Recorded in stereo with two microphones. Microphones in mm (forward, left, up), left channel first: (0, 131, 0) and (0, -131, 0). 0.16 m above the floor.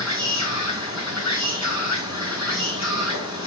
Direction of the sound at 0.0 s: 85° left.